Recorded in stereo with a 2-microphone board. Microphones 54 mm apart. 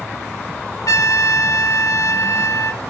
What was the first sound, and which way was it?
A trumpet, 75° left (ahead or behind).